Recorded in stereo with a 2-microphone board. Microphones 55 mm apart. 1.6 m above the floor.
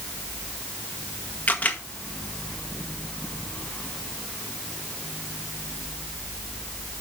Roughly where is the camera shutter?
Left.